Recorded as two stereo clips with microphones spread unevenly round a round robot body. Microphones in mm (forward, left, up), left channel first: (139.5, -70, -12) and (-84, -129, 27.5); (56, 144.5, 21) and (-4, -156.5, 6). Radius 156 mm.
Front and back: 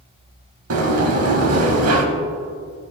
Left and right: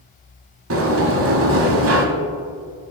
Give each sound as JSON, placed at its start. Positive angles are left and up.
{"t": 0.7, "sound": "a sliding door", "azimuth_deg": -150, "distance_m": 1.1}